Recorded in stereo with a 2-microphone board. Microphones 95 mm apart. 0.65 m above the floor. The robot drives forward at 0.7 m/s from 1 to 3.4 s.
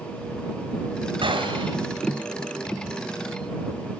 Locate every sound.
1.2 s a gunshot: 75° right (ahead or behind), 3 m